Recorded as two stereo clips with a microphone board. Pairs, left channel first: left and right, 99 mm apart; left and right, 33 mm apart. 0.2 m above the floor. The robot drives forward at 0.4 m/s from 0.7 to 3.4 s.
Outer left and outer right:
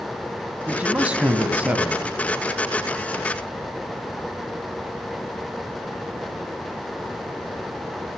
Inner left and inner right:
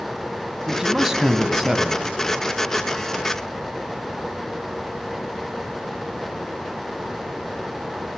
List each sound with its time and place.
0.7 s a man speaking: 15° right (ahead or behind), 1.2 m; by 2.0 s 10° right (ahead or behind), 1.5 m